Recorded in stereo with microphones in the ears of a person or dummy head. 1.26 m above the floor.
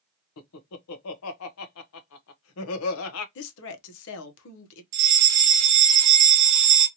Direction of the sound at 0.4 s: 75° left (ahead or behind).